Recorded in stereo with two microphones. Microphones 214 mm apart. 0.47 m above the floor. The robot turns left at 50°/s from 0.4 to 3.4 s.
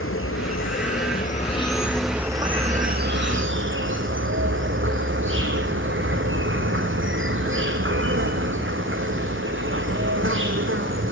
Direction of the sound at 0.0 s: 85° left.